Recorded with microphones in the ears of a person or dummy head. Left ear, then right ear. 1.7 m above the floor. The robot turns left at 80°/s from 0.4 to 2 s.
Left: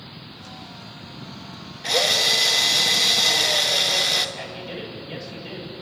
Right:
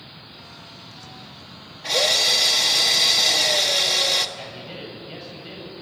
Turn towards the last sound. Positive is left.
turn(degrees=20)  # may be behind; listen again after turning